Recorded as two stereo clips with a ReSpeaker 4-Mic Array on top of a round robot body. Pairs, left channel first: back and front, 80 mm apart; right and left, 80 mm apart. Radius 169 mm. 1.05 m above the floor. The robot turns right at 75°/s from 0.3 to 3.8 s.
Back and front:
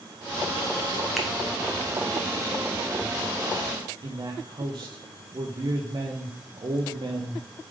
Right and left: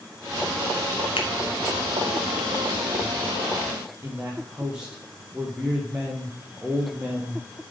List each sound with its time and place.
1.2 s a finger snap: 90° right, 1.1 m; by 1.3 s 80° right, 1.1 m
4.0 s a man speaking: 10° left, 1.2 m